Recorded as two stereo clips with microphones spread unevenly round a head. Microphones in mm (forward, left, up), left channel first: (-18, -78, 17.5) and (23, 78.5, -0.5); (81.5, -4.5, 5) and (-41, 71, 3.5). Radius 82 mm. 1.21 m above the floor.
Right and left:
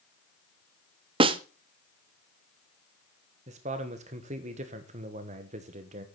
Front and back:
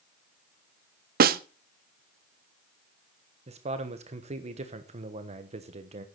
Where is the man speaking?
115° left, 1.1 m.